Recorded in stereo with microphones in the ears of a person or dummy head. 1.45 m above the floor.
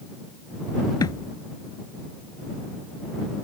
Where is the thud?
20° left (ahead or behind).